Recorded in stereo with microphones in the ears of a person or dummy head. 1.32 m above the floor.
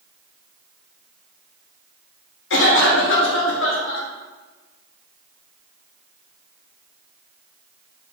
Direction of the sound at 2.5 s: 60° left (ahead or behind).